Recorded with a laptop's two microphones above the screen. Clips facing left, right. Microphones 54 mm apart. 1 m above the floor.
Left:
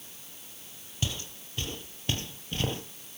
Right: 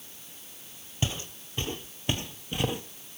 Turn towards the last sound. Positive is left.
turn(degrees=-10)  # may be behind; listen again after turning